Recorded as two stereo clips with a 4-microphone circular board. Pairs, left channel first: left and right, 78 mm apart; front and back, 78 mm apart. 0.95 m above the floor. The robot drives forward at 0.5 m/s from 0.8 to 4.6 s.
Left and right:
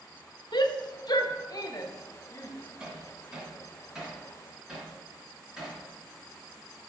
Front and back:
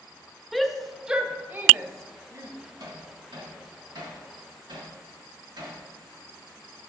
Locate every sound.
0.5 s a shout: 90° left, 0.8 m; by 2.5 s 140° left, 1.2 m
2.8 s hammering: 170° right, 1.9 m; by 5.8 s 175° right, 3 m